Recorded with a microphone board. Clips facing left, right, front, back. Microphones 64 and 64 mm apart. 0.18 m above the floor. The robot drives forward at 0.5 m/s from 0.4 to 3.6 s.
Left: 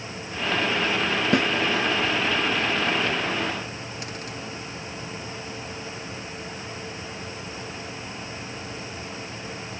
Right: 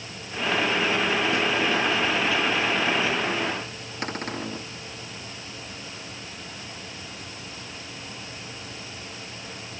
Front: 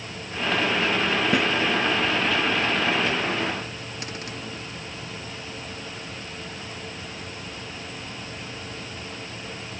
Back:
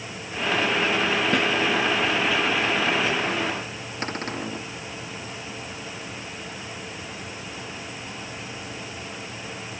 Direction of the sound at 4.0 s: 130° right.